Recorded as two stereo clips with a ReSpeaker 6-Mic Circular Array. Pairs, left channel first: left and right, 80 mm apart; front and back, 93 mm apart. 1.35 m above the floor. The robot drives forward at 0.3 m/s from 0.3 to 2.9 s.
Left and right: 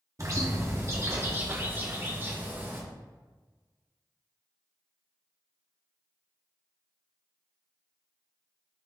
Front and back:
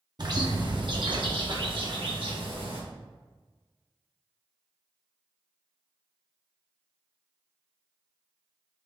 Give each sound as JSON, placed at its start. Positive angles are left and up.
{"t": 0.2, "sound": "a bird", "azimuth_deg": -140, "distance_m": 1.0}